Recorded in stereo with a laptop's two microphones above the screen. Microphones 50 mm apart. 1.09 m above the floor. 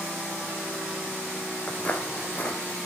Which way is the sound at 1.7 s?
30° left (ahead or behind).